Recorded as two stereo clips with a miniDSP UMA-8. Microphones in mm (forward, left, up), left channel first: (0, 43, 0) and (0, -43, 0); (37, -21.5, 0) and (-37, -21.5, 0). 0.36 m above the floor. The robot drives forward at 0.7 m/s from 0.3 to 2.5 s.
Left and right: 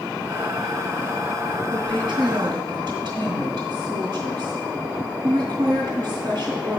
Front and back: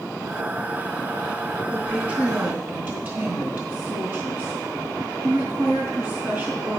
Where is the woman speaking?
110° right, 3 m; by 6.8 s 120° right, 3 m.